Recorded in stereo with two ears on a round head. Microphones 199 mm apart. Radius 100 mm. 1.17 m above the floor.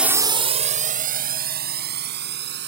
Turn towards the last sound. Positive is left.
turn(degrees=-50)  # may be behind; listen again after turning